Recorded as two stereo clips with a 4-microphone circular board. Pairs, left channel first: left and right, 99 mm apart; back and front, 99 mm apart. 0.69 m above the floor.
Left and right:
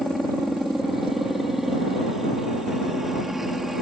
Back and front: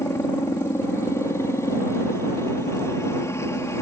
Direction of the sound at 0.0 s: 175° right.